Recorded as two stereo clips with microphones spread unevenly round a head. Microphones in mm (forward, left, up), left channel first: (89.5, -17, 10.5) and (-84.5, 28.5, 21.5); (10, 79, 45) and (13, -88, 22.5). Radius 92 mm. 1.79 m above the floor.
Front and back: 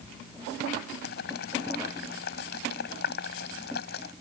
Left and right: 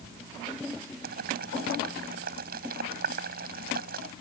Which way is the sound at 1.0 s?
55° right.